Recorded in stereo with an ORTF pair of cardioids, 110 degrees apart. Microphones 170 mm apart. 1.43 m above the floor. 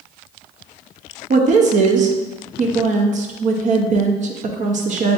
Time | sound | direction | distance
1.3 | a woman speaking | 50° right | 0.8 m